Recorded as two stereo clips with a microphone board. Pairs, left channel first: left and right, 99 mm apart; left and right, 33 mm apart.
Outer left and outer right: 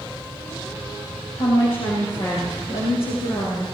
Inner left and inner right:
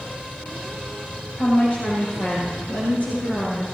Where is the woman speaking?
65° left (ahead or behind), 4.5 m; by 3.7 s 75° left (ahead or behind), 5.5 m.